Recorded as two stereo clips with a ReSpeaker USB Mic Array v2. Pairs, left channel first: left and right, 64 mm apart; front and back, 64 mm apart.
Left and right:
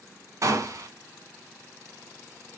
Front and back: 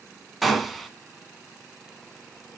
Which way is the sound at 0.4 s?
90° right.